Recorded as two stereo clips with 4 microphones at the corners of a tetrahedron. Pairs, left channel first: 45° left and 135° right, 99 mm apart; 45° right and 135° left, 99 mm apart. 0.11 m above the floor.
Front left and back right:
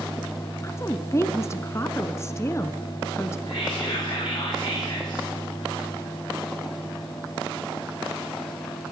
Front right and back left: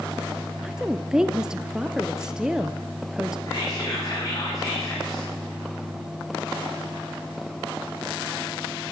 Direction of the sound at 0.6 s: 60° left.